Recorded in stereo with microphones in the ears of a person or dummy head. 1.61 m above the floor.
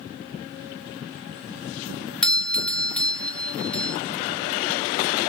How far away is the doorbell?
About 0.9 m.